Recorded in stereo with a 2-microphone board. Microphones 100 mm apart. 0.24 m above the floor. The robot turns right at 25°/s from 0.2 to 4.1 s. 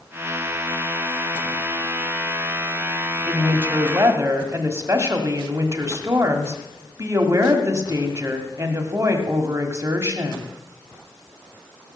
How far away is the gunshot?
I don't hear a gunshot.